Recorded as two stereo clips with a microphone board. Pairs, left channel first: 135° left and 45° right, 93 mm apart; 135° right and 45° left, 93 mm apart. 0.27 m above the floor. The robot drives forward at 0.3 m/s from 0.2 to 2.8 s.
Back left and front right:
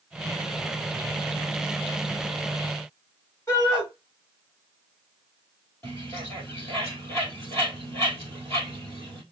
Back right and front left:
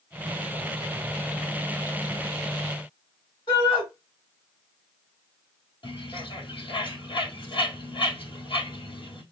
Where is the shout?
170° right, 2 m.